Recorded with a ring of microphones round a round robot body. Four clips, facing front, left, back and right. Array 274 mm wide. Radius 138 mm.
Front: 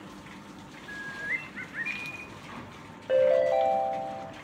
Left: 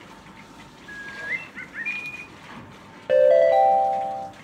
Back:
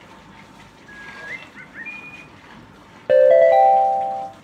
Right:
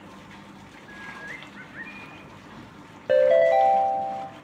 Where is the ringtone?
170° right, 1.9 m.